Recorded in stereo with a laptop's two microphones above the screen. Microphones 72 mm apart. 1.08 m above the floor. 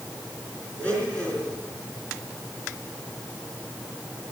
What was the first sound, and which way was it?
A blender, 20° left (ahead or behind).